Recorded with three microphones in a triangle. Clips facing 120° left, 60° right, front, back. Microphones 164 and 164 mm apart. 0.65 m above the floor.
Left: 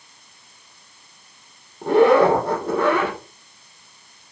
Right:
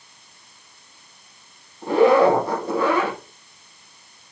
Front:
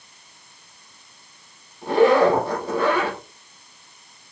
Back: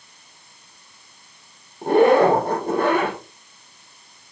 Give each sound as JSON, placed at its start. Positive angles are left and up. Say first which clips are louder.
{"t": 1.8, "sound": "a zipper", "louder": "left 1 dB, back 1 dB", "azimuth_deg": 145, "distance_m": 8.5}